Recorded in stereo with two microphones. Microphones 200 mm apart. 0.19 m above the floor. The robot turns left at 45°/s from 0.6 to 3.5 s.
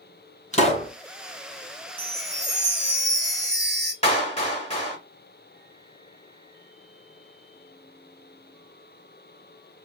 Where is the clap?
30° left (ahead or behind), 1.2 m.